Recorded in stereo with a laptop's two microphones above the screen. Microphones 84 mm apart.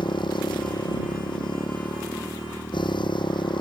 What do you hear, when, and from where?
0.0 s a motorcycle: 75° left (ahead or behind)